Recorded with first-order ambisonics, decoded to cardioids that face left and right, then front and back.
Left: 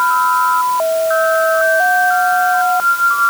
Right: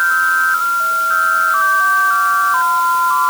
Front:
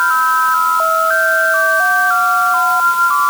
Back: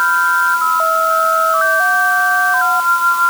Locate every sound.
Only background noise.